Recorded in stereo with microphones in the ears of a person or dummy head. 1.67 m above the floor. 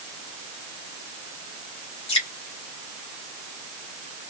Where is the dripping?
30° left (ahead or behind), 1.2 m.